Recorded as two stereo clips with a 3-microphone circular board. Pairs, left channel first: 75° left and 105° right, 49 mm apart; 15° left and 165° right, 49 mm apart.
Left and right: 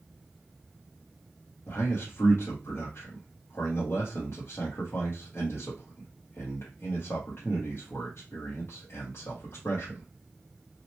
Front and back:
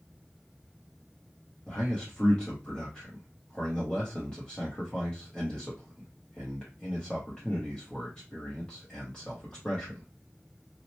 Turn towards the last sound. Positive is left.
turn(degrees=85)